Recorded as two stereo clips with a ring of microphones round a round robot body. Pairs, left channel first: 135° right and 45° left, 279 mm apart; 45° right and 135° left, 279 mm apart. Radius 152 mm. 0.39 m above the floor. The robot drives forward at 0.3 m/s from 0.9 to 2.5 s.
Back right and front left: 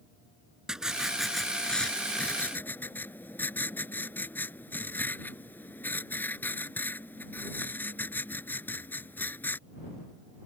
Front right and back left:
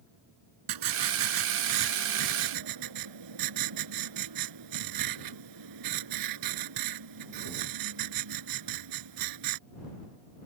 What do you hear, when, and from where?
0.7 s writing: 135° left; by 9.6 s 140° left